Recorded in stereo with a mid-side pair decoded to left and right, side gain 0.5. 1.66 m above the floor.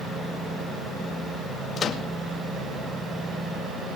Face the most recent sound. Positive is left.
turn(degrees=45)